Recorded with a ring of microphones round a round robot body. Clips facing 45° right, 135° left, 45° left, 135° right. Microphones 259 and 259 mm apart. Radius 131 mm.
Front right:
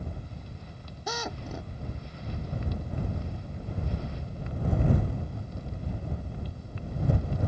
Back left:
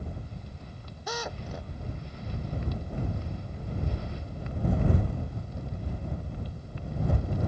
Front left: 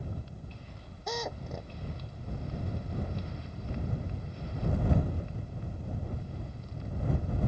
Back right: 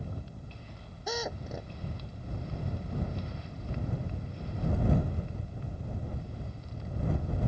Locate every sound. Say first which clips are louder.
1.1 s a drill: even, back right 1 dB; 50° right